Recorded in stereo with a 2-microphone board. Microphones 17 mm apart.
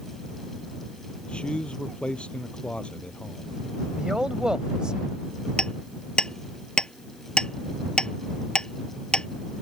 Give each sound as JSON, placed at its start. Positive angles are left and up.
{"t": 1.2, "sound": "a man speaking", "side_deg": 70}
{"t": 4.0, "sound": "a man speaking", "side_deg": -50}
{"t": 5.6, "sound": "hammering", "side_deg": 55}